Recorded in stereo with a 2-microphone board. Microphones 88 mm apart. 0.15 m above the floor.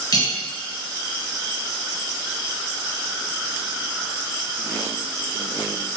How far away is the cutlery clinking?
About 1.5 m.